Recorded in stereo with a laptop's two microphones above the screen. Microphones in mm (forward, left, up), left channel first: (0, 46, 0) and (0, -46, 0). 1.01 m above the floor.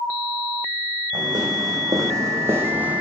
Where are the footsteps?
50° right (ahead or behind), 3 m; by 3.0 s 15° right (ahead or behind), 2.0 m.